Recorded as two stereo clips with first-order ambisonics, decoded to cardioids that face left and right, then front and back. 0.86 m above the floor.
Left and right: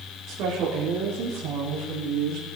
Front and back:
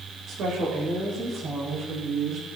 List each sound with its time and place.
0.3 s a woman speaking: 130° right, 4 m; by 2.5 s 120° right, 5 m